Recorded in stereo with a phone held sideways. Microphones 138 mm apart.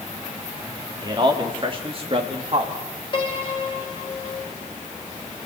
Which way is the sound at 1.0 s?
35° right (ahead or behind).